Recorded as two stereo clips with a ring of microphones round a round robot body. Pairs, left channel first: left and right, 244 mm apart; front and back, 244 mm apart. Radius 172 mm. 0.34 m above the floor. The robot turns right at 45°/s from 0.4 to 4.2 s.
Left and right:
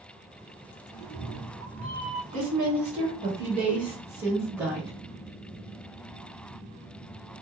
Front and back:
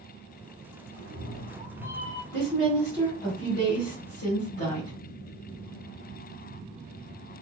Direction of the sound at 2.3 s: 95° right.